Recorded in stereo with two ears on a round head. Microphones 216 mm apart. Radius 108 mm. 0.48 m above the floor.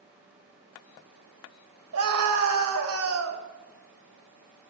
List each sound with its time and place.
1.9 s a scream: 65° right (ahead or behind), 2 m